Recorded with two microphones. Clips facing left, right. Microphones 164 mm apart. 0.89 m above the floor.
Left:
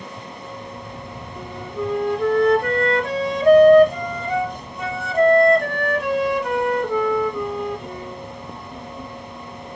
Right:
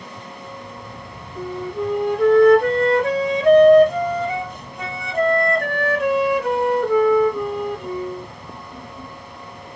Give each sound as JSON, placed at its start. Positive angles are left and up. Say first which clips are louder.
{"t": 1.4, "sound": "a flute", "louder": "right 4 dB", "side_deg": -65, "distance_m": 1.8}